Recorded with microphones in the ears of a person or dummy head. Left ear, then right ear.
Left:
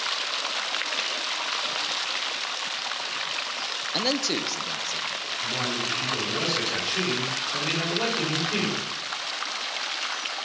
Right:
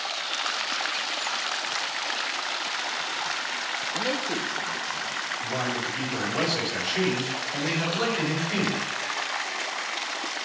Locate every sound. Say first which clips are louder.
3.9 s a man speaking: left 5 dB; 80° left, 0.6 m; by 5.1 s 50° left (ahead or behind), 1.0 m
5.4 s a man speaking: left 3 dB; 15° right (ahead or behind), 3.5 m